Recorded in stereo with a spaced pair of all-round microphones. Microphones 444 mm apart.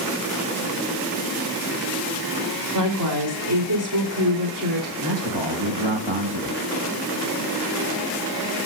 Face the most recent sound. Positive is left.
turn(degrees=-80)